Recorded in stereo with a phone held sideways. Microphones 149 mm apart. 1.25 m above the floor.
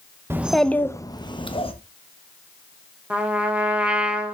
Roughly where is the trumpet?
Centre.